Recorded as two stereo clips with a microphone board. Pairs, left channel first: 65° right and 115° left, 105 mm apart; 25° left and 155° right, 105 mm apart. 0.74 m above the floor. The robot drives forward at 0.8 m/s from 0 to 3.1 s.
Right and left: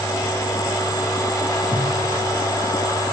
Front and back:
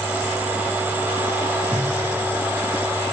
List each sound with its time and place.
1.7 s a whoosh: 95° right, 5 m